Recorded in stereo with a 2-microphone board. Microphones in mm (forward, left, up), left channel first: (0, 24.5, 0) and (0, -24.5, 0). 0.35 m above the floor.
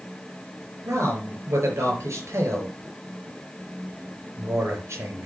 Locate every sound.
0.8 s a man speaking: 70° right (ahead or behind), 5 m